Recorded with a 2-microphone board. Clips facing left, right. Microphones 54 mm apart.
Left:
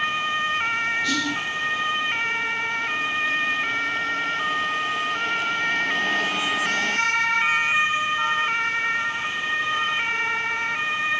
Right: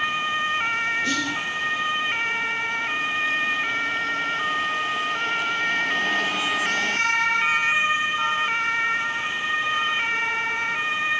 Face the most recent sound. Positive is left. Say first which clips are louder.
# left 1 dB
turn(degrees=-35)  # may be behind; listen again after turning